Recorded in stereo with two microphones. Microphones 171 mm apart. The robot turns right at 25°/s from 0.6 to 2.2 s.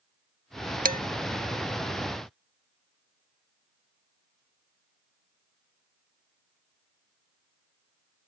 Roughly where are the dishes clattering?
Right.